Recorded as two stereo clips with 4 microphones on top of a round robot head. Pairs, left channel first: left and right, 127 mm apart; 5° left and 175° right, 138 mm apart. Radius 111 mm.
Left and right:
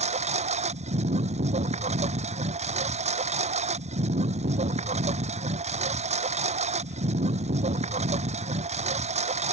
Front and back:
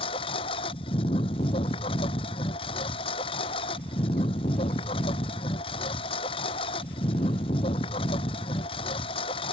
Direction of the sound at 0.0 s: 60° right.